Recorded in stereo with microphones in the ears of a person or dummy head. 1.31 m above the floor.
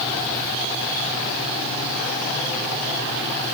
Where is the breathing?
No breathing in this recording.